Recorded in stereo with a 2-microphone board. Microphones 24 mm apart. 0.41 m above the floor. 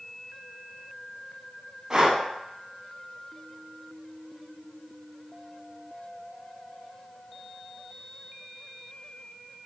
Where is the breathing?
30° right (ahead or behind), 0.5 m.